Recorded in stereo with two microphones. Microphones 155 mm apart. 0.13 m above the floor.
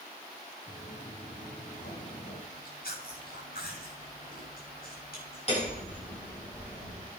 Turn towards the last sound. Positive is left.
turn(degrees=40)  # may be behind; listen again after turning